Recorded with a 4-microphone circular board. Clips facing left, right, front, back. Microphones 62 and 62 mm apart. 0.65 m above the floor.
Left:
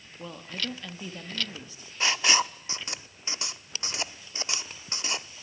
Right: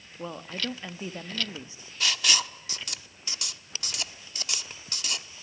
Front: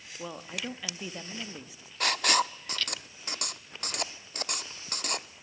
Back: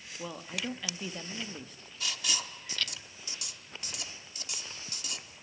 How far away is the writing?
About 0.5 m.